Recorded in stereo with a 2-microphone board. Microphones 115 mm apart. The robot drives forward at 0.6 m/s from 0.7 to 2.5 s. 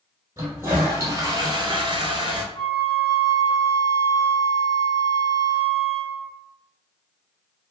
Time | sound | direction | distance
0.4 | a toilet flushing | 25° right (ahead or behind) | 0.9 m
2.5 | a flute | 45° left (ahead or behind) | 1.4 m